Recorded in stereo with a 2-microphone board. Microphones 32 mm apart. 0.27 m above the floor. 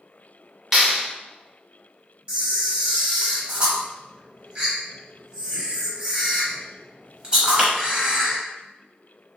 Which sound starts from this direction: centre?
A clap, at 0.7 s.